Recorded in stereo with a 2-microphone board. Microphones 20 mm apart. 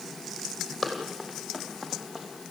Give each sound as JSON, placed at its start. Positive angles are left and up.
{"t": 0.8, "sound": "running footsteps", "side_deg": 0, "distance_m": 4.0}